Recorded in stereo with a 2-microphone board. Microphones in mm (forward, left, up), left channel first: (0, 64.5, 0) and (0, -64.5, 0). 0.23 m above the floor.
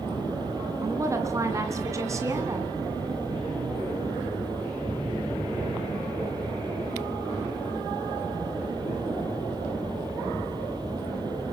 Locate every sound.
0.8 s a woman speaking: 25° right (ahead or behind), 2.5 m